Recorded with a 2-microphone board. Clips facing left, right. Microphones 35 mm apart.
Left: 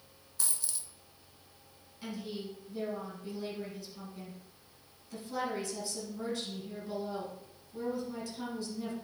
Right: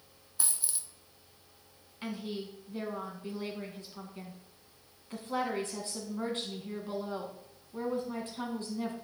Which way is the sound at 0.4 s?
20° right (ahead or behind).